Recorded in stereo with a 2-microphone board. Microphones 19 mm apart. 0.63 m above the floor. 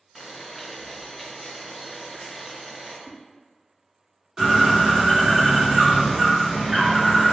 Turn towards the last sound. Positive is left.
turn(degrees=-25)  # may be behind; listen again after turning